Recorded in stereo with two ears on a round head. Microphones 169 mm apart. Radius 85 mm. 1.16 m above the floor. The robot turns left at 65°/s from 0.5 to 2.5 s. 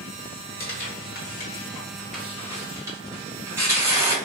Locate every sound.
0.6 s tearing paper: 50° left (ahead or behind), 1.2 m; by 4.2 s 15° right (ahead or behind), 1.2 m